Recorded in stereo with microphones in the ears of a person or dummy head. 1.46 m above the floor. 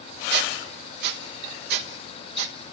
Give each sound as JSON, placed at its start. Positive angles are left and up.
{"t": 0.3, "sound": "a squeak", "side_deg": -65, "distance_m": 1.2}